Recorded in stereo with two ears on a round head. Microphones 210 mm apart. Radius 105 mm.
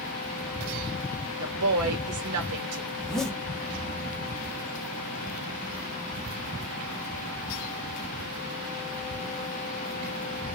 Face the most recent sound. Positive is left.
turn(degrees=0)  # may be behind; listen again after turning